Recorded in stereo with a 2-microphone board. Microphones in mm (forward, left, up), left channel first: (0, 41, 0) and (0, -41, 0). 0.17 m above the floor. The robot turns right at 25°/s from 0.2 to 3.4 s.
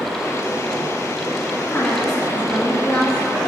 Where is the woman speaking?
130° left, 1.5 m; by 3.5 s 175° left, 1.5 m.